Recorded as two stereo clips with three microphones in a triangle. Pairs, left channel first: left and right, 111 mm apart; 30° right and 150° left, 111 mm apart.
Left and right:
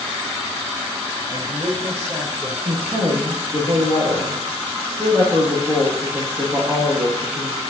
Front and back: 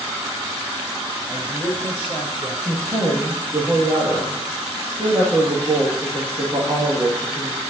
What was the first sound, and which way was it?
A man speaking, 165° right.